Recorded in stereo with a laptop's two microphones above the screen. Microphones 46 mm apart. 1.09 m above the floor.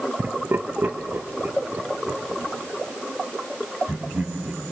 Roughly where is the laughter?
Right.